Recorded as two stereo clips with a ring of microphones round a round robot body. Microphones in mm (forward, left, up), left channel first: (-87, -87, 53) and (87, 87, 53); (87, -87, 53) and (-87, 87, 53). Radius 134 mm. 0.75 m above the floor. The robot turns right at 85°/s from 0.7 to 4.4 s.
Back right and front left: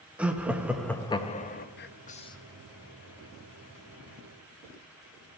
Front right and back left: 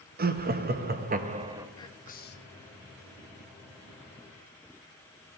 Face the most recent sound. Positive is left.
turn(degrees=110)